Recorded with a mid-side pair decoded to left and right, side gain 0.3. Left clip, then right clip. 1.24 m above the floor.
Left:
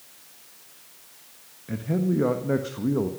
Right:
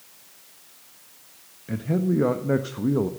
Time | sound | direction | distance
1.7 | a man speaking | 25° right | 1.4 m